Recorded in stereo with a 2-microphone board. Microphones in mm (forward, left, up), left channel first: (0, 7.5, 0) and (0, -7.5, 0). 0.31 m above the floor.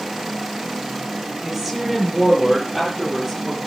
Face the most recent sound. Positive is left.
turn(degrees=20)  # may be behind; listen again after turning